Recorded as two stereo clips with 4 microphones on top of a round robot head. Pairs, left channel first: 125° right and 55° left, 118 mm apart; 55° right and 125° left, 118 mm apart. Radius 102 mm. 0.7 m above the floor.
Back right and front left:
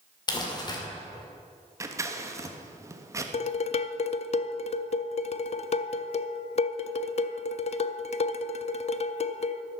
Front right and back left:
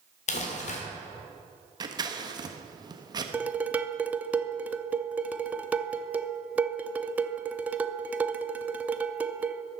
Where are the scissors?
105° left, 1.3 m.